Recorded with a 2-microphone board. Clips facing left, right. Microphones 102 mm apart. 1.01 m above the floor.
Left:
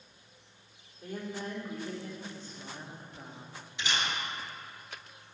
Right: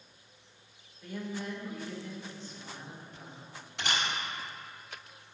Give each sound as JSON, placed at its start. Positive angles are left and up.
{"t": 1.0, "sound": "a woman speaking", "side_deg": 45, "distance_m": 3.0}
{"t": 3.8, "sound": "a camera shutter", "side_deg": -65, "distance_m": 2.5}